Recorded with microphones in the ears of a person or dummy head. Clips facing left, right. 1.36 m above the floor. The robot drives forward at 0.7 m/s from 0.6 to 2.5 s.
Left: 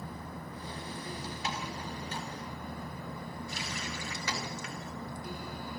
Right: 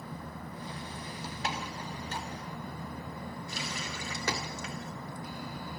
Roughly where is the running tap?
Right.